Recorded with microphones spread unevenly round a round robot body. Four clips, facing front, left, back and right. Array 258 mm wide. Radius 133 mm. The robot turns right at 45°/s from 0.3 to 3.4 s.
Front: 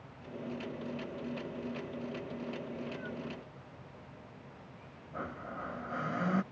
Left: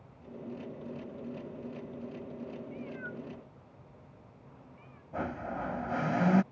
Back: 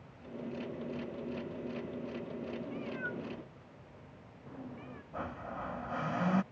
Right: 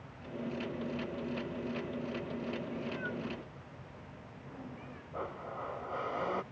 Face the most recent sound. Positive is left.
turn(degrees=95)